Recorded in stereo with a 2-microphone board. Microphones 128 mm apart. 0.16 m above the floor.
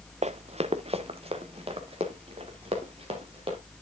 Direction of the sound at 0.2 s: 55° right (ahead or behind).